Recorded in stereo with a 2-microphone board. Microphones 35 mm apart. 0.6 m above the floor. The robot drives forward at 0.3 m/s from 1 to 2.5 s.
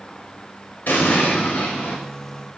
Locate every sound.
0.9 s an explosion: 65° left (ahead or behind), 0.7 m; by 2.0 s 50° left (ahead or behind), 0.9 m